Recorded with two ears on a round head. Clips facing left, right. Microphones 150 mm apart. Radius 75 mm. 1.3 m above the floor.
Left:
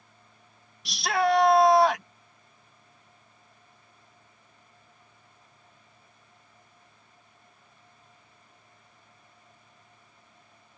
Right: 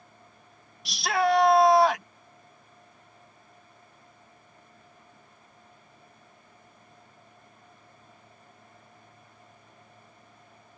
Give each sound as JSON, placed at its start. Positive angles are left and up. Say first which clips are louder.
{"t": 0.8, "sound": "a shout", "louder": "even", "side_deg": 0}